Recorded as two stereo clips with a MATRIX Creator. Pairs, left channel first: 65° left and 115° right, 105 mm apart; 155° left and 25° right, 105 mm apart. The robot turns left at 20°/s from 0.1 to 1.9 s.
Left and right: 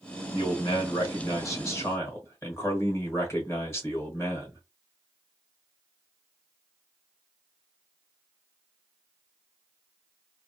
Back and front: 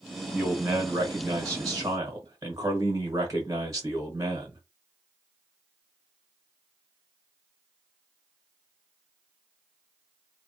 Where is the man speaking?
50° left, 1.0 m; by 4.6 s 20° left, 1.0 m.